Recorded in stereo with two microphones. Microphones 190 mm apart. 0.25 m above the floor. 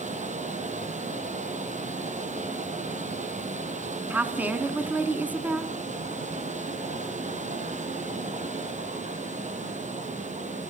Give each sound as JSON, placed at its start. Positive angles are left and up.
{"t": 0.0, "sound": "running water", "side_deg": -40, "distance_m": 3.0}
{"t": 4.1, "sound": "a woman speaking", "side_deg": -10, "distance_m": 2.0}